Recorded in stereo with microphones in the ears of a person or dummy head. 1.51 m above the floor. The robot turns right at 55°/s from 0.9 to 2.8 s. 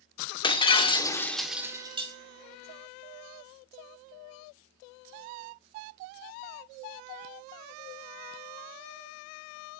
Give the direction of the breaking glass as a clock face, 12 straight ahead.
7 o'clock.